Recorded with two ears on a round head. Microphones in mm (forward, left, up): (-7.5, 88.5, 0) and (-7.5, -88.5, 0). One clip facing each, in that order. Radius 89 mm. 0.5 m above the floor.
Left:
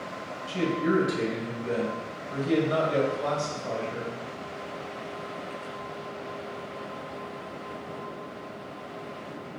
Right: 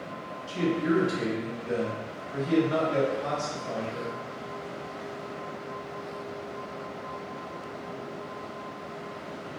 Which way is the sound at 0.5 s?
30° left (ahead or behind).